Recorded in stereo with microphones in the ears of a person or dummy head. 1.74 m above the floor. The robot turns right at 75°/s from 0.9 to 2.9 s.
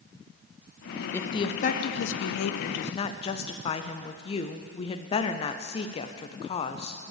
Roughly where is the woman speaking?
Ahead.